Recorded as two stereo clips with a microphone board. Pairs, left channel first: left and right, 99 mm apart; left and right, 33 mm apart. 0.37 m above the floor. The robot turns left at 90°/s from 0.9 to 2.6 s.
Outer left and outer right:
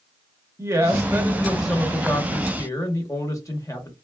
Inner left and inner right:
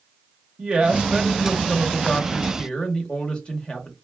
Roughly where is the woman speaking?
Behind right.